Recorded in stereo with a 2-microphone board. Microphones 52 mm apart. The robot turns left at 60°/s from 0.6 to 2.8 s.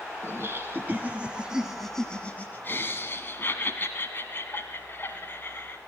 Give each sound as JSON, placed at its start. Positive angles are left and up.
{"t": 0.2, "sound": "laughter", "azimuth_deg": -110, "distance_m": 1.5}